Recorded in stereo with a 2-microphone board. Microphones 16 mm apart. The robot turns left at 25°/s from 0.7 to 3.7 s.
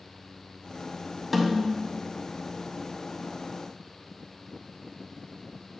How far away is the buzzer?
No buzzer in this recording.